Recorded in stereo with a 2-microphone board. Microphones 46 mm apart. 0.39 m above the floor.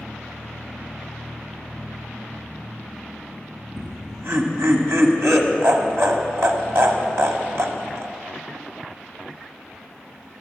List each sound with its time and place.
3.8 s laughter: 70° right (ahead or behind), 1.9 m